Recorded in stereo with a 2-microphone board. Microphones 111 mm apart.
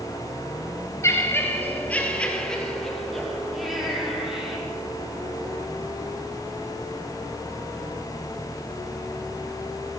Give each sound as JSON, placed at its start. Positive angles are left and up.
{"t": 1.0, "sound": "laughter", "side_deg": 25, "distance_m": 2.5}